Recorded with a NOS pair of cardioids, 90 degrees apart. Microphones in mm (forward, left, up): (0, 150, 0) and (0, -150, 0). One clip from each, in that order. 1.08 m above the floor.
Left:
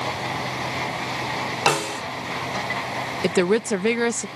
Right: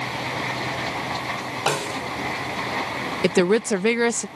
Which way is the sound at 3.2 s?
20° right.